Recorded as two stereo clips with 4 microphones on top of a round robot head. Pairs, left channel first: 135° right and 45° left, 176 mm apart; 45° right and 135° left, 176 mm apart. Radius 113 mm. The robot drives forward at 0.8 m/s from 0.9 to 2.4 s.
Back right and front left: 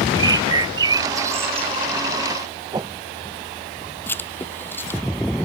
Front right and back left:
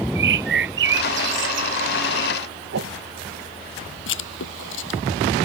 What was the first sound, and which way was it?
A bird, 115° left.